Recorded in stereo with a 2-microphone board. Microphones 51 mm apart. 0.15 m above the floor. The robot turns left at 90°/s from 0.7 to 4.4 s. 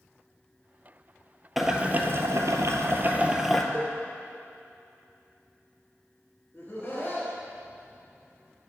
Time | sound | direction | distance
1.6 | boiling | straight ahead | 0.6 m
3.7 | a cowbell | 25° right (ahead or behind) | 2.5 m
6.5 | laughter | 40° left (ahead or behind) | 1.6 m